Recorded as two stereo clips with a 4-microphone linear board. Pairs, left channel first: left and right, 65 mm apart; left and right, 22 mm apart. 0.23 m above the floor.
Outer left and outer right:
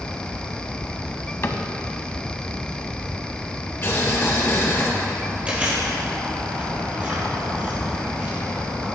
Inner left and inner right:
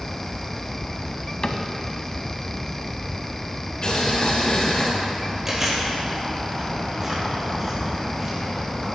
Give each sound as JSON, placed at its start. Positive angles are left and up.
{"t": 1.4, "sound": "a cupboard door", "side_deg": 40, "distance_m": 0.7}
{"t": 3.8, "sound": "boiling", "side_deg": 45, "distance_m": 2.0}
{"t": 5.5, "sound": "chewing", "side_deg": -20, "distance_m": 4.0}